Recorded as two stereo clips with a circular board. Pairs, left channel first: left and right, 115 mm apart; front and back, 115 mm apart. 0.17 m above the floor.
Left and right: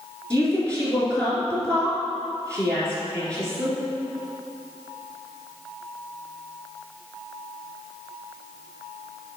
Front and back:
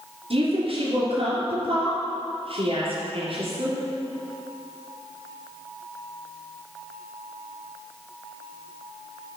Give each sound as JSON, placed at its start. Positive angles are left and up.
{"t": 0.3, "sound": "a woman speaking", "azimuth_deg": 170, "distance_m": 2.5}